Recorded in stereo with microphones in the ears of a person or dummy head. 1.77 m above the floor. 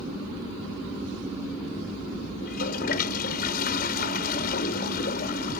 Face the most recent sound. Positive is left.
turn(degrees=60)  # may be behind; listen again after turning